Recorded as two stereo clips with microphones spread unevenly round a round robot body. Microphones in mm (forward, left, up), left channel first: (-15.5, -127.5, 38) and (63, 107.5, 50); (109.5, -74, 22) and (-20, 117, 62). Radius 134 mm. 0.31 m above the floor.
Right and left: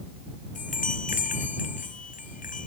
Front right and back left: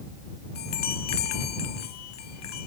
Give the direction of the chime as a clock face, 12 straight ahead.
2 o'clock.